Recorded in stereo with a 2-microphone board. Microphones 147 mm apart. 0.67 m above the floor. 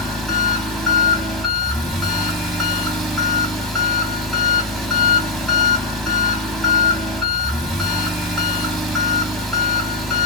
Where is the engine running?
Centre (ahead or behind), 1.0 m.